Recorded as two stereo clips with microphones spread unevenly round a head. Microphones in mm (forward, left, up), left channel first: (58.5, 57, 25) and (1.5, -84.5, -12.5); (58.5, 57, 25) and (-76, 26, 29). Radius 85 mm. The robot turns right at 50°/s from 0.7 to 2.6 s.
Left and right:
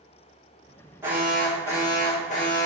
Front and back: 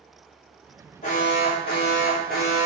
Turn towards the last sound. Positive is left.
turn(degrees=40)